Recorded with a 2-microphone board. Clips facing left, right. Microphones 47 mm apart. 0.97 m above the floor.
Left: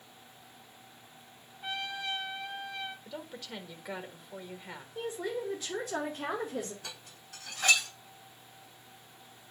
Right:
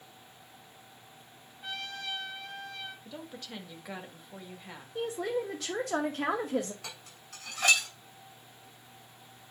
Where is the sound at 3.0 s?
5° left (ahead or behind), 1.6 m.